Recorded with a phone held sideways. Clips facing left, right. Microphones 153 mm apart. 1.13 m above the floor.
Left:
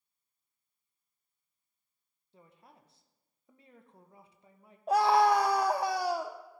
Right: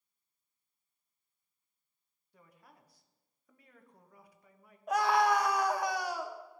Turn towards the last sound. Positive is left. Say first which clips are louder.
# left 4 dB
turn(degrees=30)  # may be behind; listen again after turning